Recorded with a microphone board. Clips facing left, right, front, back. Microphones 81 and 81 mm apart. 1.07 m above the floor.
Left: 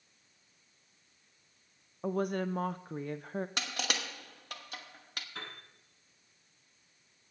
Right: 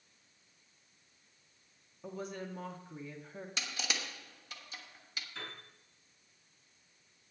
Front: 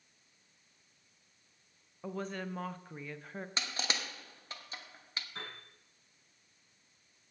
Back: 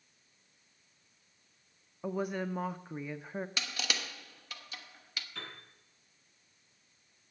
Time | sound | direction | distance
2.0 | a woman speaking | 105° left | 0.5 m
3.6 | crushing | 60° left | 1.0 m
5.3 | a piano | 55° left | 7.5 m